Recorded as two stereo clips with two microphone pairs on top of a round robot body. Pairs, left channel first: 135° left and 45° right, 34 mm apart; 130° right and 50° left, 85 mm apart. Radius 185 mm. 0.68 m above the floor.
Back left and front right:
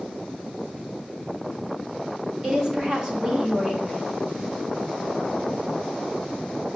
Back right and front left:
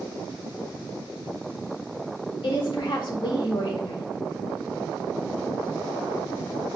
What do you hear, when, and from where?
2.4 s a woman speaking: 115° right, 1.7 m